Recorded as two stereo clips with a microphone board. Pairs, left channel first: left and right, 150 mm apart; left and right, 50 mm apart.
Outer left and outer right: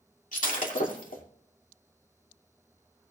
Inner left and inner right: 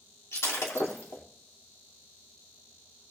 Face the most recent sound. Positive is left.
turn(degrees=65)  # may be behind; listen again after turning